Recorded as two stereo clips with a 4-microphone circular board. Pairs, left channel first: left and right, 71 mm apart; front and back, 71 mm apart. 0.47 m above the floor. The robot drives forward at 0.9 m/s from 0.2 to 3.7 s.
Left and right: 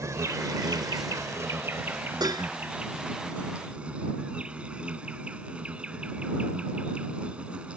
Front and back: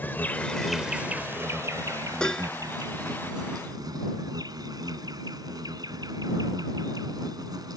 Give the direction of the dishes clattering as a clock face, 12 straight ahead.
3 o'clock.